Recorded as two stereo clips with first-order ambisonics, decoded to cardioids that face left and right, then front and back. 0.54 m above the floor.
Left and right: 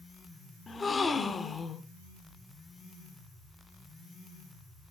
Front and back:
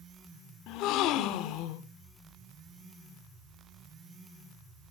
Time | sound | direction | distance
0.7 | a gasp | 20° left | 1.0 m